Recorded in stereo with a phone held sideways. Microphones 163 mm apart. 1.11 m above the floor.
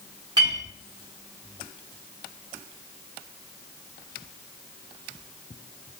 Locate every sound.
0.4 s a clink: 25° right (ahead or behind), 1.0 m